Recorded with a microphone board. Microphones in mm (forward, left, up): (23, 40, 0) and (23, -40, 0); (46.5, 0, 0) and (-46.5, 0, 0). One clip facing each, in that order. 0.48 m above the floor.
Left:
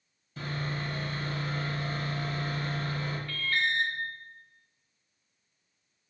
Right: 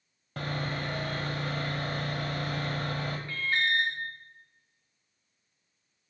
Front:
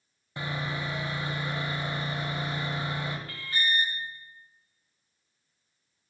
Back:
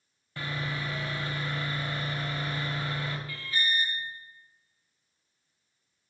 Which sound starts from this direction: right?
Sawing, at 0.4 s.